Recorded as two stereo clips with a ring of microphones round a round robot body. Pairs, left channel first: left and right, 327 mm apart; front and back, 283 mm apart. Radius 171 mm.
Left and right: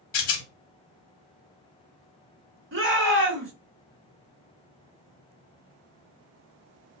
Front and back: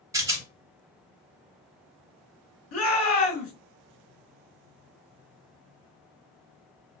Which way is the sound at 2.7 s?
40° right.